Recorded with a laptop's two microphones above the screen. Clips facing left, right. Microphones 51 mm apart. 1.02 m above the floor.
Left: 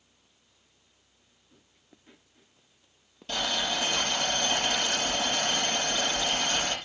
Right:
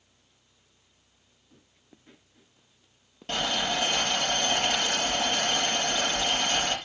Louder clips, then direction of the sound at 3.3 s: Right 2 dB; 45° right (ahead or behind).